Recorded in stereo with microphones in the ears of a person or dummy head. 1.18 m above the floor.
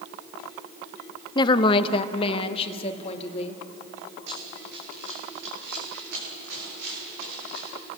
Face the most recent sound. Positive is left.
turn(degrees=-55)  # may be behind; listen again after turning